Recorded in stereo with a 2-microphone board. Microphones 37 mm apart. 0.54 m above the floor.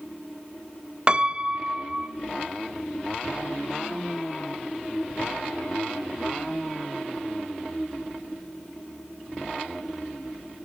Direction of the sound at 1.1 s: 30° right (ahead or behind).